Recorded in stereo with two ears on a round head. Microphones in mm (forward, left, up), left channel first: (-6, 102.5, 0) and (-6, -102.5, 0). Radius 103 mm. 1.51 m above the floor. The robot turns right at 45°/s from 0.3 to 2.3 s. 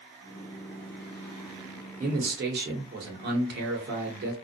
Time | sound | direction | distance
2.0 | a man speaking | 35° right (ahead or behind) | 1.0 m